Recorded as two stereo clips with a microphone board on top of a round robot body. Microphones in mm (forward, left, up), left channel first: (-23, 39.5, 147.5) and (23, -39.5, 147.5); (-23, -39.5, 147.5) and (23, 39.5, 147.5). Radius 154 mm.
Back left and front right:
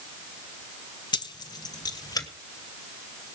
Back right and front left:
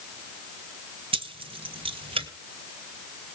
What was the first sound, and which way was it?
Keys jangling, 80° left.